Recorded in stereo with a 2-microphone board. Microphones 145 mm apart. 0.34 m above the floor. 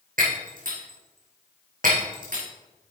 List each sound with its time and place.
0.2 s breaking glass: 70° right (ahead or behind), 4 m